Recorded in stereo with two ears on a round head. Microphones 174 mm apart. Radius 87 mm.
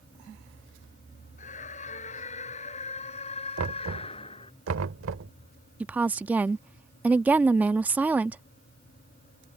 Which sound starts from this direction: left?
A scream, at 1.4 s.